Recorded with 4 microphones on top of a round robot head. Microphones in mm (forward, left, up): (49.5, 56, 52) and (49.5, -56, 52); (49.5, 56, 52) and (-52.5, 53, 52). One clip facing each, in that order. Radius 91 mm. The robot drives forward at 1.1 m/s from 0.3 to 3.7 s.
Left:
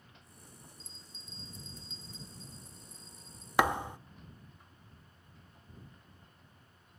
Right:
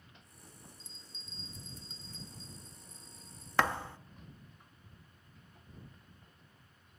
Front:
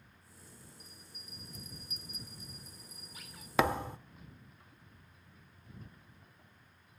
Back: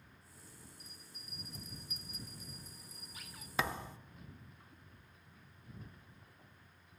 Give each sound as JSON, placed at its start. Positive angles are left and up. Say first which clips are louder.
{"t": 0.8, "sound": "a bell", "louder": "left 1 dB, front 1 dB", "azimuth_deg": -60, "distance_m": 0.6}
{"t": 3.6, "sound": "a thud", "louder": "left 3 dB, front 8 dB", "azimuth_deg": 15, "distance_m": 0.6}